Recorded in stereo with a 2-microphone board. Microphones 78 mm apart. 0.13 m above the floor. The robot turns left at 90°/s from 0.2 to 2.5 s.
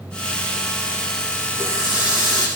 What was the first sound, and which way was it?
A running tap, 30° right.